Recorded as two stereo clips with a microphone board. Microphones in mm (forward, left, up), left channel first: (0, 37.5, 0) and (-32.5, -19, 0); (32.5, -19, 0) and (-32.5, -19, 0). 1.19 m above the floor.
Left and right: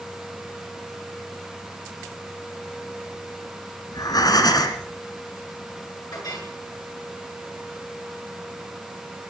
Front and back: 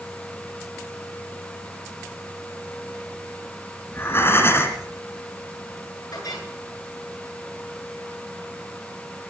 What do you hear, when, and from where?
3.9 s breathing: 50° left, 2.5 m
6.1 s a clink: 30° left, 9 m